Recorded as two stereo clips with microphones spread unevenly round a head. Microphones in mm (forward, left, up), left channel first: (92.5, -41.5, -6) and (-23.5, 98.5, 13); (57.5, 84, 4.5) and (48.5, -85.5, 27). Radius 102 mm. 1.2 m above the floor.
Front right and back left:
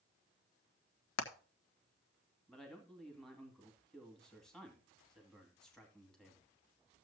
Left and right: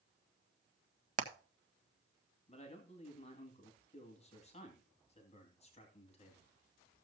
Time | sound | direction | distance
1.2 | hammering | 50° right | 1.4 m
2.5 | a man speaking | 35° left | 2.5 m